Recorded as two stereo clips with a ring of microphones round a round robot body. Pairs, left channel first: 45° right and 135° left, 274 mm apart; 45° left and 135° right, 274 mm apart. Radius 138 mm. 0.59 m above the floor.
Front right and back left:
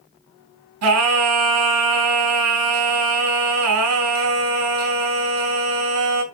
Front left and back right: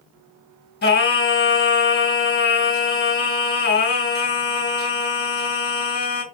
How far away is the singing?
About 4 m.